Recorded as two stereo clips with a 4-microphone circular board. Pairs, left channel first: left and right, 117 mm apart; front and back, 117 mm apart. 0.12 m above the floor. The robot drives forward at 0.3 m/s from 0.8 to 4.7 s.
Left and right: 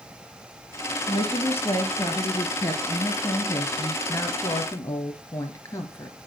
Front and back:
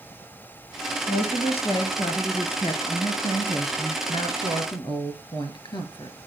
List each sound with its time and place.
1.1 s a woman speaking: 20° left, 2.5 m; by 6.2 s 35° left, 1.8 m